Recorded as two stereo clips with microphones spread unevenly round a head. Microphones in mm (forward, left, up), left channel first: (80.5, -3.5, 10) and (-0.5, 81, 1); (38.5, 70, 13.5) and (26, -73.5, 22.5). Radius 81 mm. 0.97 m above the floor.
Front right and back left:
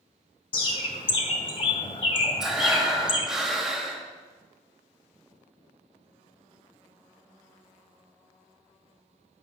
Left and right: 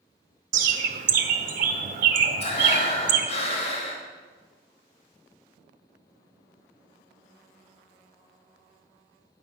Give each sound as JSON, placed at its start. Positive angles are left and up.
{"t": 0.5, "sound": "a bird", "azimuth_deg": -90, "distance_m": 1.0}
{"t": 2.4, "sound": "breathing", "azimuth_deg": 50, "distance_m": 1.9}